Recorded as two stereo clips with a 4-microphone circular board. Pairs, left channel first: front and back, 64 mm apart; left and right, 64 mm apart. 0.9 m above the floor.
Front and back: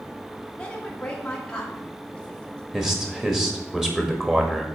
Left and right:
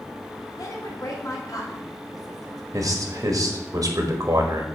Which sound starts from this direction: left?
A woman speaking, at 0.6 s.